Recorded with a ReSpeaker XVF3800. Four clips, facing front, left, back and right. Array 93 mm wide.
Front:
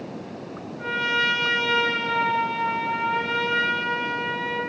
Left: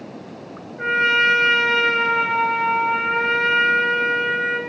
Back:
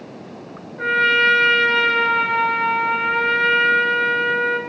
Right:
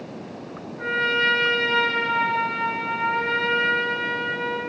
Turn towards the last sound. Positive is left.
turn(degrees=160)